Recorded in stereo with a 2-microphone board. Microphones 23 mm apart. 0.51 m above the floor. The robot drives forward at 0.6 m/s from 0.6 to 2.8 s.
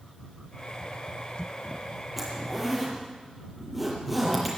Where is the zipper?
10° right (ahead or behind), 7 m.